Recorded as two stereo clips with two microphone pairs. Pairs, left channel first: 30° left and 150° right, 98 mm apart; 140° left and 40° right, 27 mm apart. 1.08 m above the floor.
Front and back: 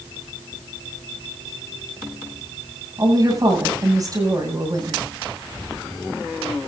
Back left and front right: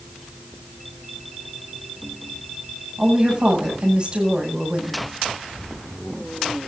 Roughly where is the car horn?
No car horn in this recording.